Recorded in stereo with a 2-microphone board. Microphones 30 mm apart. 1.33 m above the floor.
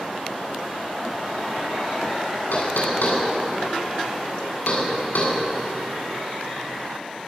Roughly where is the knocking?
Left.